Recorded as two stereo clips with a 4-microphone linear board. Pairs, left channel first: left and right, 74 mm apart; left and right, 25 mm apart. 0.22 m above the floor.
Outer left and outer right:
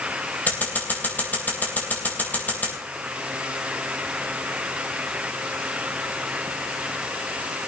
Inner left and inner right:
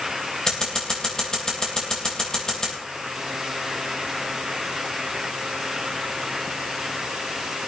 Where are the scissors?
25° left (ahead or behind), 3.5 m.